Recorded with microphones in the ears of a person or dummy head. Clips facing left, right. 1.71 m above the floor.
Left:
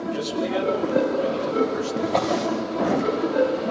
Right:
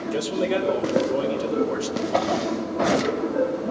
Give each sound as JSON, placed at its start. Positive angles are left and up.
{"t": 0.1, "sound": "a man speaking", "side_deg": -70, "distance_m": 5.5}
{"t": 2.0, "sound": "a drawer", "side_deg": -10, "distance_m": 8.5}